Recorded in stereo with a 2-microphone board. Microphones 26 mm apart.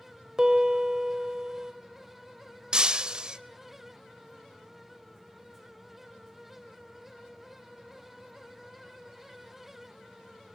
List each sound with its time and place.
0.4 s a piano: 25° right (ahead or behind), 1.7 m
2.7 s breaking glass: 35° right (ahead or behind), 0.7 m